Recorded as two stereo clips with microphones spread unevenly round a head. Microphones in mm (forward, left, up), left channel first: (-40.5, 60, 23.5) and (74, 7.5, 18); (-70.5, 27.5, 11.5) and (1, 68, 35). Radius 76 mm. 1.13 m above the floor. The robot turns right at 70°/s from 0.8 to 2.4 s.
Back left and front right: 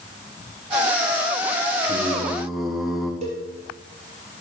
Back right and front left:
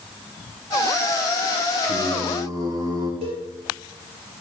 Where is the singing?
25° left, 3 m; by 3.1 s 65° left, 3 m.